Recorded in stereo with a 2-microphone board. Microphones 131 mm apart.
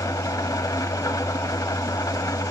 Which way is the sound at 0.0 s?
30° left (ahead or behind).